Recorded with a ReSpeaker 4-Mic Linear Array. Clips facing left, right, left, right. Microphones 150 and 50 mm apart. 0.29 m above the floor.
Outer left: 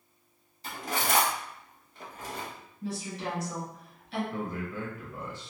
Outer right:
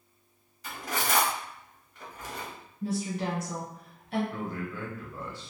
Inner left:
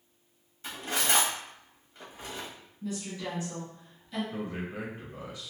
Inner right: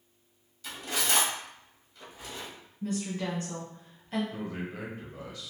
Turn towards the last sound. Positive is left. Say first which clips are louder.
# outer left 1 dB, inner left 1 dB
turn(degrees=20)  # may be behind; listen again after turning